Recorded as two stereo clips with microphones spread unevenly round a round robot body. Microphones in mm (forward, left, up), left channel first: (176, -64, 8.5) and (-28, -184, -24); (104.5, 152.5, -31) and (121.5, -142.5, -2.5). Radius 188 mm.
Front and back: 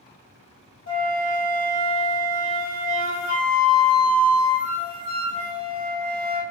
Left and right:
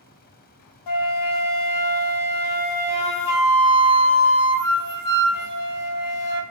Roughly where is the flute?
Left.